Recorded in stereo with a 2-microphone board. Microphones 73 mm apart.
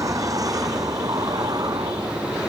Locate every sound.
0.0 s a vehicle: 55° right (ahead or behind); by 2.5 s 65° right (ahead or behind)